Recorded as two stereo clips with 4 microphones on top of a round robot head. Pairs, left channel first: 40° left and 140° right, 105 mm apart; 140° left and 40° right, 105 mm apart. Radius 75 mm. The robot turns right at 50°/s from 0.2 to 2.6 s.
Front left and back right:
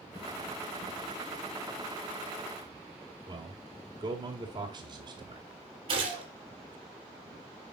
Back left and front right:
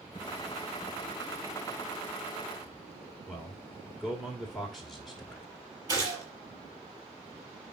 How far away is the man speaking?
About 1.8 m.